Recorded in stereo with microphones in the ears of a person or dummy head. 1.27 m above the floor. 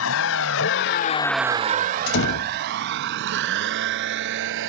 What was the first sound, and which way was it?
A vehicle, 75° left (ahead or behind).